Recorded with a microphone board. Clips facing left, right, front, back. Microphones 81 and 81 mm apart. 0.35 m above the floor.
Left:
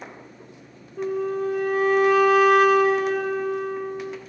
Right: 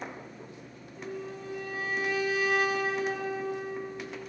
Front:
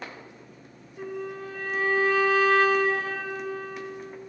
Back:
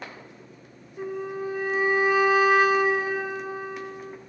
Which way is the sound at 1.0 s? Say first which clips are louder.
Left 14 dB, back 3 dB; 105° left.